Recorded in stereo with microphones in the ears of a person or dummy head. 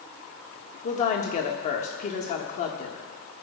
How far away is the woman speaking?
About 1.5 m.